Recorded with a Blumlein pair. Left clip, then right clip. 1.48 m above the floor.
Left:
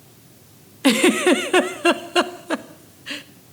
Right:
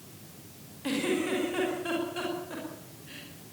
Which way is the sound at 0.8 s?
50° left.